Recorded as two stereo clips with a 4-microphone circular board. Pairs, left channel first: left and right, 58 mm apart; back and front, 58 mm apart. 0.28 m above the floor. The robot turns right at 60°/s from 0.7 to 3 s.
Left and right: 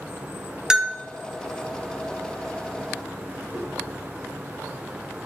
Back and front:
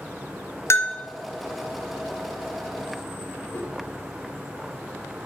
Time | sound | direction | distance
0.7 | a bell | 170° right | 0.8 m
3.5 | a whoosh | 165° right | 3.5 m